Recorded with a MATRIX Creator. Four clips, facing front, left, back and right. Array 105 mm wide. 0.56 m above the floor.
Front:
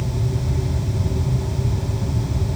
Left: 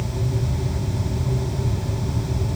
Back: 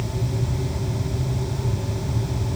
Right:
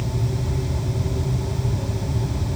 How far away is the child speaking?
I don't hear a child speaking.